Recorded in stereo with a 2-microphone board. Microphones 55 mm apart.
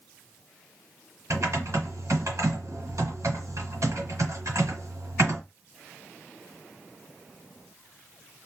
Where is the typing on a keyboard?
70° right (ahead or behind), 2.0 m.